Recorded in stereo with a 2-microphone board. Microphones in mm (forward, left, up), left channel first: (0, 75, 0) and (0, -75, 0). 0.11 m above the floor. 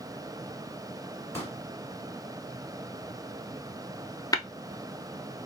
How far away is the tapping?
About 0.5 m.